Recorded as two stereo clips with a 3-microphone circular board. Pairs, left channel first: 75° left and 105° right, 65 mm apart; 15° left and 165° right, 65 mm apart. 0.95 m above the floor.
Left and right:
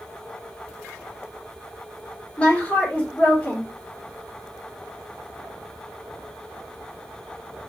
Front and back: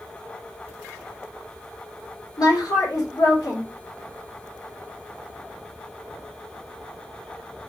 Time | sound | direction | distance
2.4 | a woman speaking | 5° left | 1.8 m